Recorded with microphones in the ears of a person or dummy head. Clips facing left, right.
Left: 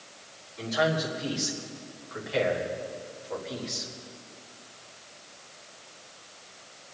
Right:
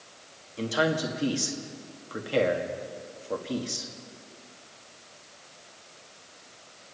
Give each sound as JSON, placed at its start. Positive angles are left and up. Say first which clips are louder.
{"t": 0.6, "sound": "a man speaking", "louder": "right 1 dB", "side_deg": -45, "distance_m": 1.8}